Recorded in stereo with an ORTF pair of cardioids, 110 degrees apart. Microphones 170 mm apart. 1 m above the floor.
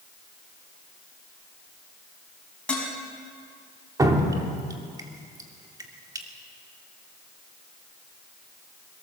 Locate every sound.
2.7 s dishes clattering: 5° left, 5.5 m
4.0 s dripping: 20° right, 2.5 m